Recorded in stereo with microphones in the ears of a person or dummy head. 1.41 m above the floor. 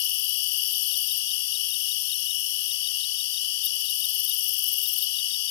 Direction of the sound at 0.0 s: 60° left (ahead or behind).